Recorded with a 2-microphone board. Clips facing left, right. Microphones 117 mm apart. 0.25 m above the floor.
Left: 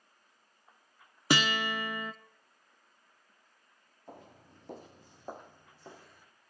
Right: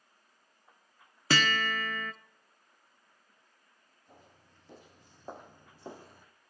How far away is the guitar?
About 0.5 m.